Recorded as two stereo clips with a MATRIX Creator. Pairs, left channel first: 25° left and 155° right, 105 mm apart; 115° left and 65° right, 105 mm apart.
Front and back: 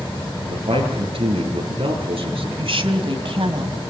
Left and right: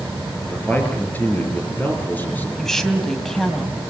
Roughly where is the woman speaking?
Behind.